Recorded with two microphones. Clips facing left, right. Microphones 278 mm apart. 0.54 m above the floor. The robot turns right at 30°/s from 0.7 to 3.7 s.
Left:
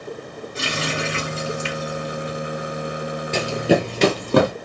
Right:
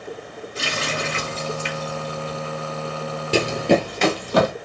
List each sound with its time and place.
0.6 s a running tap: 85° left, 3 m; by 2.4 s 40° left (ahead or behind), 3 m
3.3 s running footsteps: 40° right (ahead or behind), 0.6 m; by 4.5 s 60° left (ahead or behind), 1.1 m